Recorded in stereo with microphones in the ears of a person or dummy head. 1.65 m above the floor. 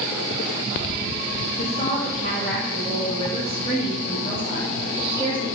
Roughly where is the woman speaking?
Left.